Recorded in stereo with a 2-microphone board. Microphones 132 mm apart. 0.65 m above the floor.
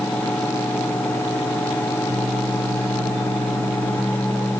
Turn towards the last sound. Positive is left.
No sound to turn to.